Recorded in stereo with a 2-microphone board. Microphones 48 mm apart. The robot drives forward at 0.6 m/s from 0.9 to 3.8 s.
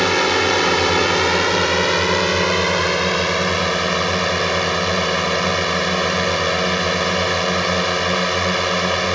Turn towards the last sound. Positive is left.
turn(degrees=0)  # may be behind; listen again after turning